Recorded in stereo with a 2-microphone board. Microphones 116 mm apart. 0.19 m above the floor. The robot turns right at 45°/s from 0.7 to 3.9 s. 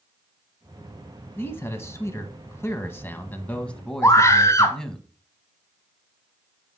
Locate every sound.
1.4 s a man speaking: 20° left (ahead or behind), 1.1 m; by 5.0 s 5° left (ahead or behind), 1.1 m
4.0 s a scream: 25° left (ahead or behind), 1.2 m